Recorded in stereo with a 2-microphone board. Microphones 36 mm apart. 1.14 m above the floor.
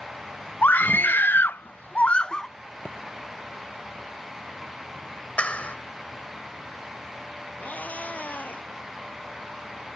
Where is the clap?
40° left (ahead or behind).